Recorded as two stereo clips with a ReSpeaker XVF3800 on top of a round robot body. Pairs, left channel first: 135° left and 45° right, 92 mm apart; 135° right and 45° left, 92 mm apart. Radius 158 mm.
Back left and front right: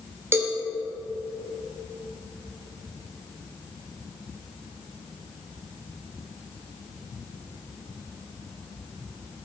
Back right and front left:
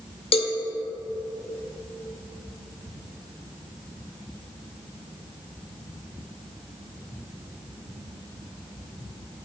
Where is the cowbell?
110° right, 0.6 m.